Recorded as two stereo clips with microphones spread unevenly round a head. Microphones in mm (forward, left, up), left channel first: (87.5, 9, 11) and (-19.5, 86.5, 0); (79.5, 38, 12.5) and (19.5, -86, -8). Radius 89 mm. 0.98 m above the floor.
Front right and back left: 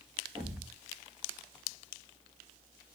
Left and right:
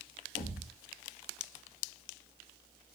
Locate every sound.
0.3 s a thud: 60° left, 2.5 m